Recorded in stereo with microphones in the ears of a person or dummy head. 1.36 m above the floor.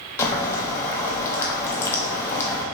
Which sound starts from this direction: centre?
Boiling, at 0.2 s.